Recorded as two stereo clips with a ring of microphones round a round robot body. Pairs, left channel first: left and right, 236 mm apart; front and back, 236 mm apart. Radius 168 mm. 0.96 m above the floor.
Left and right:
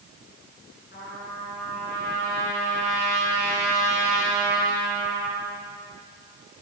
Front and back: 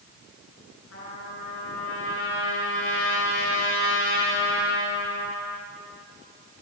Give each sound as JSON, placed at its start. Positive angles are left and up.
{"t": 0.9, "sound": "a trumpet", "azimuth_deg": 25, "distance_m": 9.5}